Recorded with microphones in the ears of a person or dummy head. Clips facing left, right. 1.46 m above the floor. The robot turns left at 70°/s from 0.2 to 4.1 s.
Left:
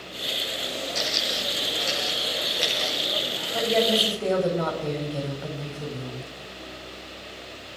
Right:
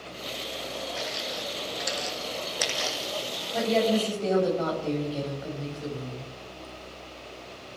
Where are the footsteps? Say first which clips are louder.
Left 3 dB; 55° left (ahead or behind), 3 m; by 3.4 s 40° right (ahead or behind), 4 m.